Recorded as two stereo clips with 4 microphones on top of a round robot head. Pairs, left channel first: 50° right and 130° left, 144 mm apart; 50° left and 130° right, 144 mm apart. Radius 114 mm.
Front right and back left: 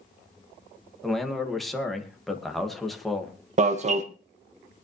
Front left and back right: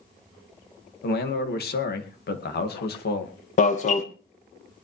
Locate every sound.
1.0 s a man speaking: 40° left, 2 m
3.6 s an alarm: 90° left, 1.8 m